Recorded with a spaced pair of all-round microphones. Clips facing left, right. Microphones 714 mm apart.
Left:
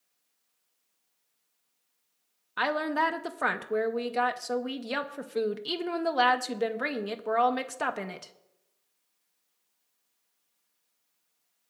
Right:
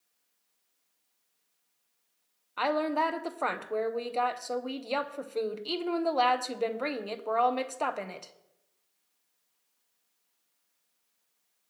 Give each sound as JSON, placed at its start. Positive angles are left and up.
{"t": 2.6, "sound": "a woman speaking", "side_deg": 50, "distance_m": 0.8}